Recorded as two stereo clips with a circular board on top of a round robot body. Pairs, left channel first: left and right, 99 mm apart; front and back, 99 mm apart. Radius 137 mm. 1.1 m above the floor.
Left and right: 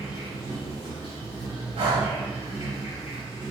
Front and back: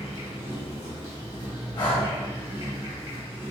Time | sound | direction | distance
0.0 | an insect | 125° left | 1.6 m
1.8 | breathing | 50° right | 0.9 m